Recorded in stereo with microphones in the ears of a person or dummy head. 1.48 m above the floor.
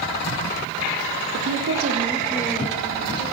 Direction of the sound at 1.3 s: 65° right (ahead or behind).